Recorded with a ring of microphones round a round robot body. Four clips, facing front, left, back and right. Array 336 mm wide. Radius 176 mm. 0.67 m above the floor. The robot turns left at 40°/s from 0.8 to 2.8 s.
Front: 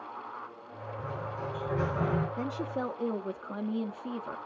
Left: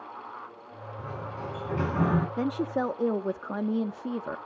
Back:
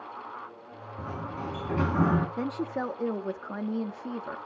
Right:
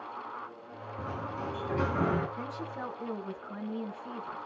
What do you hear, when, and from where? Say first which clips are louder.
1.0 s a sliding door: right 1 dB, back 2 dB; 155° right, 4 m; by 2.3 s 155° left, 4 m
2.4 s a woman speaking: left 10 dB, back 2 dB; 115° left, 1.0 m; by 4.4 s 100° left, 1.0 m